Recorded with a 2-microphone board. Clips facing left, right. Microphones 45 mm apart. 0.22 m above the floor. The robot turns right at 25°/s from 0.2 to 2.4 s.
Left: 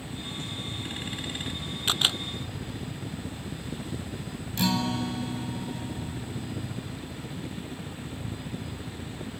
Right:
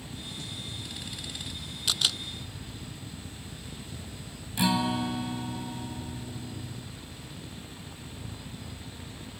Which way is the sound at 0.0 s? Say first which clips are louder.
Left 4 dB; 20° left.